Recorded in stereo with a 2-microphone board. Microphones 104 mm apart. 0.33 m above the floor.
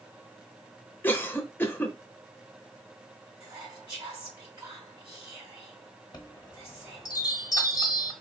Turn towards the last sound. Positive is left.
turn(degrees=40)  # may be behind; listen again after turning